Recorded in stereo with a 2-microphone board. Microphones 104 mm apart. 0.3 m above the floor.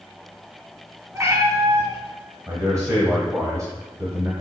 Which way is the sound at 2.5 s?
30° right (ahead or behind).